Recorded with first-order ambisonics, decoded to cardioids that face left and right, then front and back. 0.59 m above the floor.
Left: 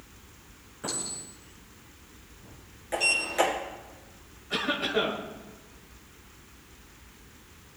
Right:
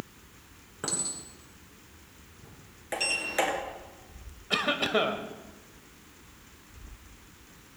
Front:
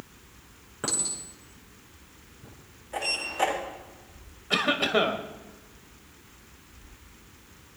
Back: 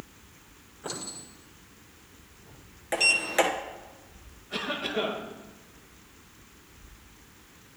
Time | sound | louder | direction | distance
0.8 | a clink | right 1 dB, front 6 dB | 30° right | 6 m
2.9 | a sliding door | left 4 dB, back 7 dB | 165° right | 2.5 m
4.5 | a cough | right 1 dB, front 7 dB | 30° right | 2 m